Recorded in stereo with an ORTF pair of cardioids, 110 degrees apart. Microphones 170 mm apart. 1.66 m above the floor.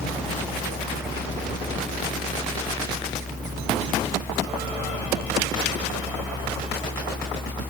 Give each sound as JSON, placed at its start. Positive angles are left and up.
{"t": 0.0, "sound": "a fan", "azimuth_deg": 10}